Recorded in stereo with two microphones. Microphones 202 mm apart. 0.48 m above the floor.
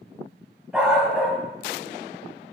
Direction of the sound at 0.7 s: 5° right (ahead or behind).